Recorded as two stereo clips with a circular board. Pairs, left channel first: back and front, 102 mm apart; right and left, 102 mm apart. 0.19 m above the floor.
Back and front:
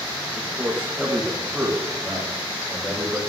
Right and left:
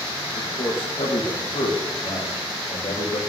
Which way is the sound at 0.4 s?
75° right.